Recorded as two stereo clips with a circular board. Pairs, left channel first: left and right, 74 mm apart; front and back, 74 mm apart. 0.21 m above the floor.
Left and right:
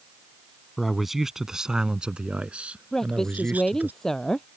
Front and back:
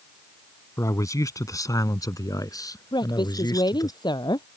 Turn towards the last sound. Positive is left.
turn(degrees=5)